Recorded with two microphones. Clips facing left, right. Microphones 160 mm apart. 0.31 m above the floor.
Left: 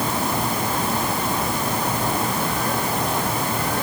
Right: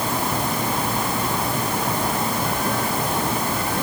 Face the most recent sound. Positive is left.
No sound to turn to.